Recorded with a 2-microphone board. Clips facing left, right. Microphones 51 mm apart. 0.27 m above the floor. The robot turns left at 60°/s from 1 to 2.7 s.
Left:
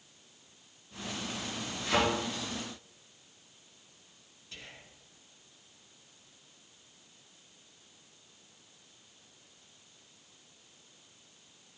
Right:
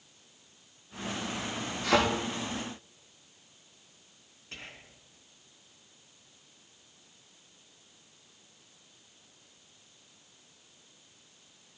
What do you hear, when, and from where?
1.8 s a thud: 75° right (ahead or behind), 5 m; by 2.0 s 80° right, 5 m
4.5 s whispering: 45° right (ahead or behind), 2.5 m